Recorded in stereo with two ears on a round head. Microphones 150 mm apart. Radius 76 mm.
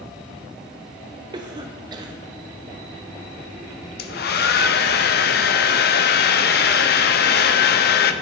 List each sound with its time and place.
1.3 s a cough: 25° right (ahead or behind), 0.6 m
4.0 s a hair dryer: 65° left (ahead or behind), 0.5 m